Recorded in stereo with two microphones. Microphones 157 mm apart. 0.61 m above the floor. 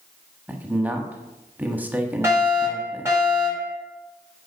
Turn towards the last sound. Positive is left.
turn(degrees=-15)  # may be behind; listen again after turning